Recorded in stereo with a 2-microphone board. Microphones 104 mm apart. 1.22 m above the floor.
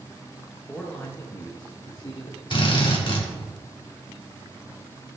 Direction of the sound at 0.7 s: 10° left (ahead or behind).